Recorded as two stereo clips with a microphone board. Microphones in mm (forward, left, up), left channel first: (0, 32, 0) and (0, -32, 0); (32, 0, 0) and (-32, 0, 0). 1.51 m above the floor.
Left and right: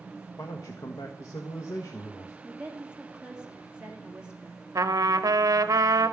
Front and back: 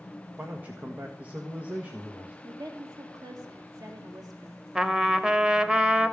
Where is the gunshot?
No gunshot in this recording.